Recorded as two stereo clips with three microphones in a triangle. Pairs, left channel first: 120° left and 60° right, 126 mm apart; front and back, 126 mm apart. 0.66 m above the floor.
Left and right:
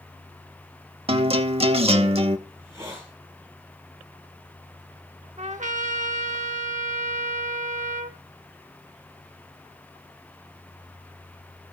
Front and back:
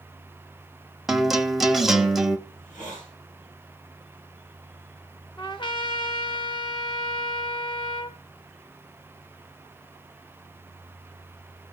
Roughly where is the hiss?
Ahead.